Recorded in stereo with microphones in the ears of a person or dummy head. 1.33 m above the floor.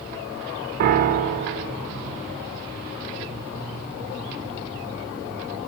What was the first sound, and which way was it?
A piano, 45° right (ahead or behind).